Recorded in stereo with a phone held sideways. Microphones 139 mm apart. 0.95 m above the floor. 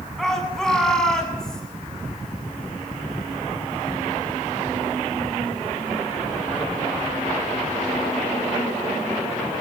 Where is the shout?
Centre (ahead or behind), 8 m; by 1.6 s 5° left (ahead or behind), 7.5 m.